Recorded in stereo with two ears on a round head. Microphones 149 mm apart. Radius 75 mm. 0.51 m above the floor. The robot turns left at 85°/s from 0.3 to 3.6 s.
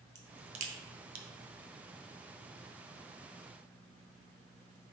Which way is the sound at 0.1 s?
20° right (ahead or behind).